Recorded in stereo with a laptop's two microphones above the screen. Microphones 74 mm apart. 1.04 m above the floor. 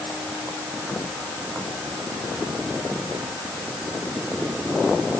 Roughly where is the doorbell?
No doorbell in this recording.